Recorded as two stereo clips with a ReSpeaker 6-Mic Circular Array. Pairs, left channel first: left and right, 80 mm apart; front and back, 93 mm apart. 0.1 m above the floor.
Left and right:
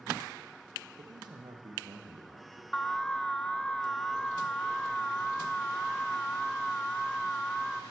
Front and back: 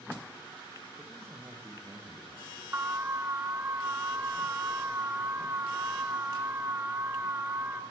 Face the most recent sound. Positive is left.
turn(degrees=160)